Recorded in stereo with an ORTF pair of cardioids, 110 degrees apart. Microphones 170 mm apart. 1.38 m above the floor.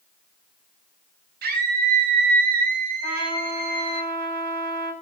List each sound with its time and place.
1.4 s a scream: 70° right, 9.5 m; by 4.0 s 60° right, 8 m
3.0 s a trumpet: 65° right, 6.5 m